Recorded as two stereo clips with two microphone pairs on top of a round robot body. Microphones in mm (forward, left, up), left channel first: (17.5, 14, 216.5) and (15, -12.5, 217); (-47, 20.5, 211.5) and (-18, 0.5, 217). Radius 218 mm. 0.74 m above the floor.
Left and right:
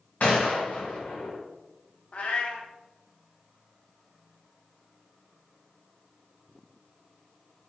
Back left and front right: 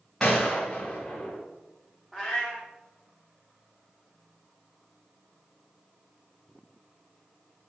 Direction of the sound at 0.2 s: 55° left.